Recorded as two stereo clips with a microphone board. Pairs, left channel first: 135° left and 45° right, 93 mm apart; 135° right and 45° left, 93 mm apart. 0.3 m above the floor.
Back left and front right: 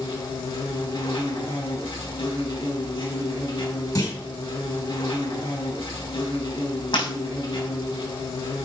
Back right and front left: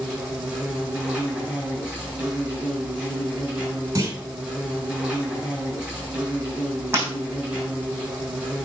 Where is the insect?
115° left, 4.5 m.